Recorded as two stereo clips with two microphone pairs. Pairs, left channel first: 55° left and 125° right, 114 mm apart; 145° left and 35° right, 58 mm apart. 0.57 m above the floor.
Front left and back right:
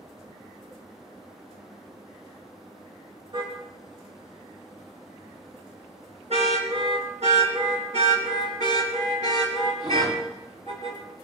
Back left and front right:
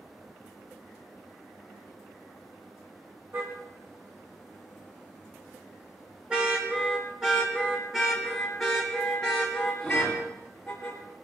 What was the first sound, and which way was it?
A car horn, 80° right.